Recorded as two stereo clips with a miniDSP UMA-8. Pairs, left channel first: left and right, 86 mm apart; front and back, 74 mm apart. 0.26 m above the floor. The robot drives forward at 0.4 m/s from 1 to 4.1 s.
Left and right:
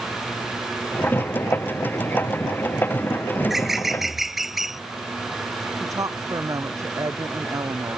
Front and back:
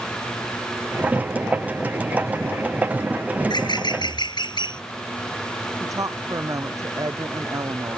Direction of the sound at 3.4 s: 5° right.